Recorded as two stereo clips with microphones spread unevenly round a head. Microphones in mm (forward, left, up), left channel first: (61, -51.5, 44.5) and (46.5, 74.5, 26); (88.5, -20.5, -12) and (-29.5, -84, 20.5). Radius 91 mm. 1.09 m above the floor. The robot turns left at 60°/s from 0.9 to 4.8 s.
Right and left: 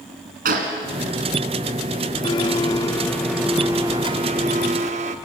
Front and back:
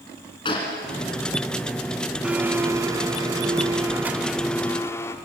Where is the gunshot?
95° left, 2.5 m.